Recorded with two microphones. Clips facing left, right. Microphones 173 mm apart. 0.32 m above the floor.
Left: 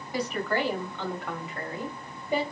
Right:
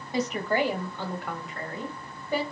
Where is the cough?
No cough in this recording.